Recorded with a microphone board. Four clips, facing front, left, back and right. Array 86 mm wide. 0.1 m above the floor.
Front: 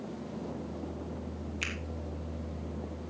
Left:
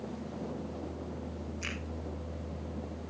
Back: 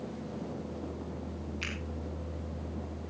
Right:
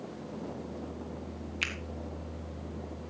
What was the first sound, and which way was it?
A finger snap, 75° right.